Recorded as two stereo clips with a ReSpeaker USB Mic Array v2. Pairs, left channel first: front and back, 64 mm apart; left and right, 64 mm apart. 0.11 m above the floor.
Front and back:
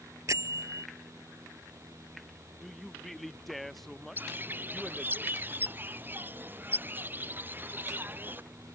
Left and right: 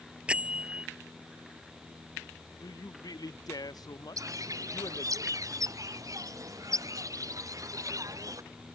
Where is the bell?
160° right.